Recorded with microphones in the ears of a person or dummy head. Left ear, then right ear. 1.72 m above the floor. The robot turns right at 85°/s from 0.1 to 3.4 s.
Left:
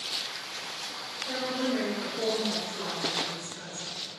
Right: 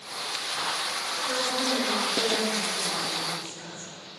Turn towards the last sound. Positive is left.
turn(degrees=125)